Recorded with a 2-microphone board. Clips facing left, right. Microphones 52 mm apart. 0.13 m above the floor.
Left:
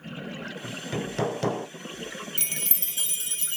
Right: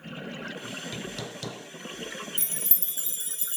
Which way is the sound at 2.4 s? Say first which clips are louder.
Left 5 dB; 75° left (ahead or behind).